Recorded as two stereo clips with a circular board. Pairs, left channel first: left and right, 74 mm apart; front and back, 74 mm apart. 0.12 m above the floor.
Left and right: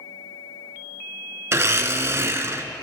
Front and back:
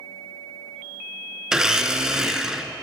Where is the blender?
105° right, 0.7 m.